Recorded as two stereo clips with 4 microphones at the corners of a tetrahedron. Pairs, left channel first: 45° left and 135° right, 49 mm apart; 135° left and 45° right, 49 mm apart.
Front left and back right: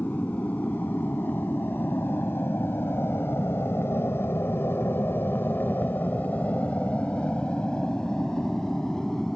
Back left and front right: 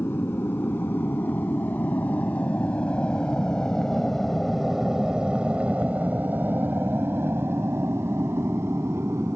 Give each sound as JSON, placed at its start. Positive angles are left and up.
{"t": 0.0, "sound": "an aircraft", "azimuth_deg": 95}